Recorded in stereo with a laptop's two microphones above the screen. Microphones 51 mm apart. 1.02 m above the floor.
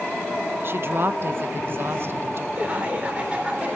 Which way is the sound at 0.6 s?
45° right (ahead or behind).